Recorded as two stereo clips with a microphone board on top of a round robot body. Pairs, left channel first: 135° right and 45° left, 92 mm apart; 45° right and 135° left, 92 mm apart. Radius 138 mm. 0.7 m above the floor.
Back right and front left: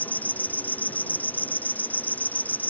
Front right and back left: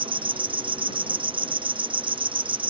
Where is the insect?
155° left.